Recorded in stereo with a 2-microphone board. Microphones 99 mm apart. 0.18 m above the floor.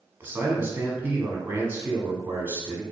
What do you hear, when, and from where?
0.2 s a man speaking: 25° right (ahead or behind), 1.1 m